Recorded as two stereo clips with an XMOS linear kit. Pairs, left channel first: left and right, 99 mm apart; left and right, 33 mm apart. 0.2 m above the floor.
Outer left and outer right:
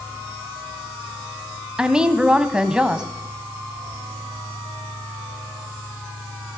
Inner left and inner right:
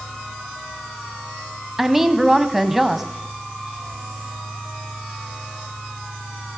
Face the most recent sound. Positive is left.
turn(degrees=-10)  # may be behind; listen again after turning